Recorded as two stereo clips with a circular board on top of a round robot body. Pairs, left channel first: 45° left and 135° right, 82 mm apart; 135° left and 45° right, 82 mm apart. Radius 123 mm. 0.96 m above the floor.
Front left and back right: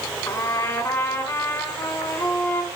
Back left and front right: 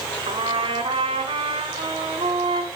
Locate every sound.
0.3 s a trumpet: 20° right, 1.4 m